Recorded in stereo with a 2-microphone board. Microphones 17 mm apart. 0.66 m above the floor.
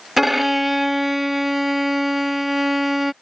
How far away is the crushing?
No crushing in this recording.